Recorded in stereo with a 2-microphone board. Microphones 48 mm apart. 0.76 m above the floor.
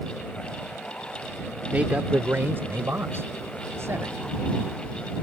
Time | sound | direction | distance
1.7 | a man speaking | 30° right (ahead or behind) | ?